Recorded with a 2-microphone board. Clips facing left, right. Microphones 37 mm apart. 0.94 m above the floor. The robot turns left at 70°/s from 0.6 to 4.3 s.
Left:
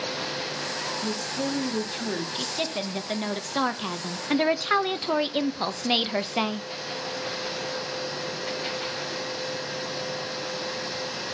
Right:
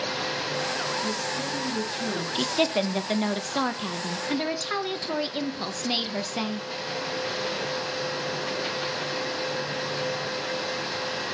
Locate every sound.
1.0 s a woman speaking: 110° left, 1.5 m; by 2.2 s 20° left, 1.5 m
2.4 s a woman speaking: 105° right, 0.5 m; by 6.7 s 120° left, 0.5 m